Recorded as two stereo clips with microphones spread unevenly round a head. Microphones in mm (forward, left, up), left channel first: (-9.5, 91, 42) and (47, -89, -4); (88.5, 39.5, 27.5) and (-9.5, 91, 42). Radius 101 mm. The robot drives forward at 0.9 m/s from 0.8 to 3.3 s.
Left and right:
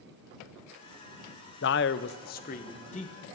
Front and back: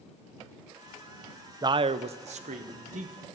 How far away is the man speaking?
About 0.6 m.